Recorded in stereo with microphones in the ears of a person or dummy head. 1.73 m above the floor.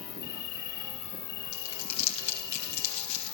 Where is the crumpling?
40° left (ahead or behind), 5 m.